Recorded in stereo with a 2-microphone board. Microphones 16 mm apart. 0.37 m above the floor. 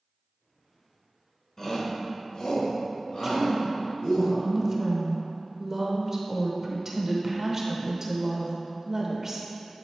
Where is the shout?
30° left (ahead or behind), 1.1 m; by 4.2 s 75° left (ahead or behind), 4.5 m.